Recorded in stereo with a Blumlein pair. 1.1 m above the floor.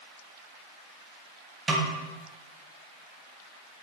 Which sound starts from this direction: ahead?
A snare drum, at 1.7 s.